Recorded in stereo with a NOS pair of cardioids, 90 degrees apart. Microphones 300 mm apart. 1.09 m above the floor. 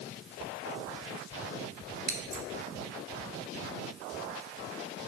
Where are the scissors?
30° right, 0.7 m.